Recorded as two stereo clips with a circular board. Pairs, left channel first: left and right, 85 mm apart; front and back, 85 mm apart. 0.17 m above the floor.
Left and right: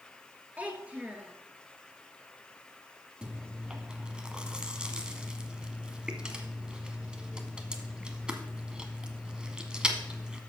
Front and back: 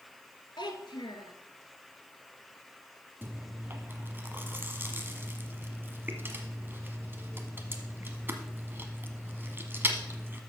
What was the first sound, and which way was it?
A child speaking, 20° right.